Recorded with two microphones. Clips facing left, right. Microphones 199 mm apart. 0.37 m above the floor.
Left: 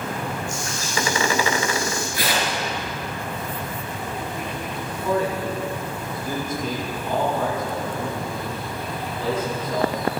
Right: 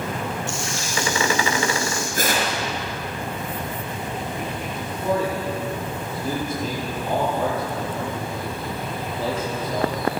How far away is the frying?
About 9 m.